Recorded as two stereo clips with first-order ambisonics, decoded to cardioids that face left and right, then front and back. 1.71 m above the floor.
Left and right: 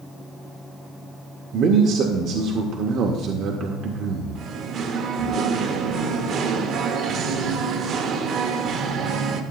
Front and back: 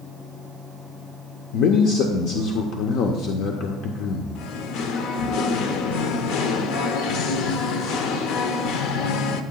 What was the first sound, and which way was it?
A man speaking, 40° right.